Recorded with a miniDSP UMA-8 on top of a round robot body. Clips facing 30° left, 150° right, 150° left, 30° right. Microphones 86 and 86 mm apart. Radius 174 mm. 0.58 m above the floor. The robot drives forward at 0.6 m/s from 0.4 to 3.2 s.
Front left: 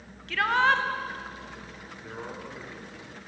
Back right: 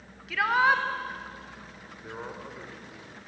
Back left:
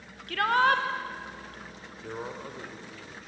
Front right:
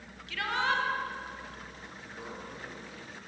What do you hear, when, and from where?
0.3 s a shout: 125° left, 1.9 m; by 0.8 s 130° left, 2 m
2.0 s a man speaking: 140° left, 3.5 m; by 3.3 s 145° left, 4 m